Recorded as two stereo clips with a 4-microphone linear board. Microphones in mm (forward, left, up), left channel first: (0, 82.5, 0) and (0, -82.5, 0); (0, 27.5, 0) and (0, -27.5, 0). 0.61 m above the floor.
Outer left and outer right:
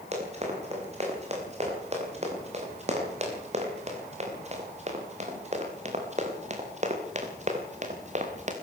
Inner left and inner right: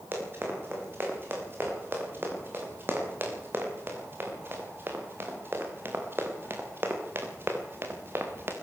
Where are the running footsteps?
40° right (ahead or behind), 8.5 m; by 8.5 s 45° right (ahead or behind), 4 m.